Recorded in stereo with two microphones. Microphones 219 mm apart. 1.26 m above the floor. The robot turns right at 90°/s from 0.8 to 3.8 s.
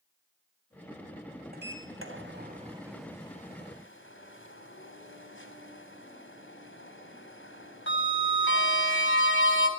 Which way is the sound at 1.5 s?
45° right (ahead or behind).